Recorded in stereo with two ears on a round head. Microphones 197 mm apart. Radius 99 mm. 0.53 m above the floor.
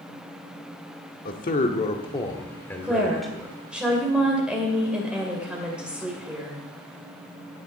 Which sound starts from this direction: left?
A man speaking, at 1.2 s.